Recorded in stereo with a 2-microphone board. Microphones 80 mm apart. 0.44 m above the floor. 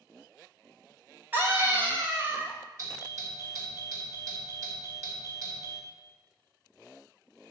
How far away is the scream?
About 1.7 m.